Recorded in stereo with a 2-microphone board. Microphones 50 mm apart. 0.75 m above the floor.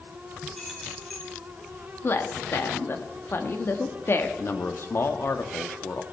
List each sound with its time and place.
0.6 s keys jangling: 10° left (ahead or behind), 3.5 m
2.0 s a woman speaking: 50° left (ahead or behind), 1.2 m
4.4 s a man speaking: 50° left (ahead or behind), 1.0 m